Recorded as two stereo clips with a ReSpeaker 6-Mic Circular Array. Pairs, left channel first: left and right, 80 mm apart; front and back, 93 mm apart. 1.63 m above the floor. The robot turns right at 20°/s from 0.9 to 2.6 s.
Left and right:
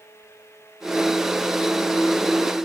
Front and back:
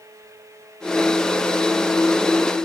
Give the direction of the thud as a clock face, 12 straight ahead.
No thud in this recording.